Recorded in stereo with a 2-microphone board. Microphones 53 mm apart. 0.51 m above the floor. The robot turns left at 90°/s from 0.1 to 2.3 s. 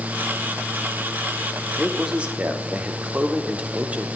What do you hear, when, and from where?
1.8 s a man speaking: straight ahead, 1.3 m; by 4.1 s 45° right, 1.3 m